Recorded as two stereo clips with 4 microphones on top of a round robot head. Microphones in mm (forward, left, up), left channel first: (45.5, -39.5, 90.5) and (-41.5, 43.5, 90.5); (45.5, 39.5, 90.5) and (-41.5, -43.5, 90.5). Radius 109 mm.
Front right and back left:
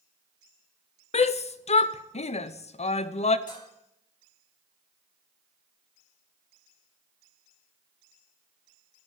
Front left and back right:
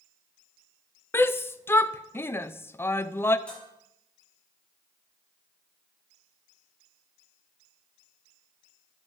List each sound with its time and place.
1.1 s a shout: 25° right, 0.6 m
3.5 s dishes clattering: 40° right, 5.5 m